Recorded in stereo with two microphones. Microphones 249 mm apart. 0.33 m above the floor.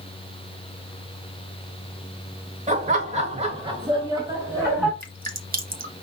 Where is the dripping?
35° right (ahead or behind), 0.9 m.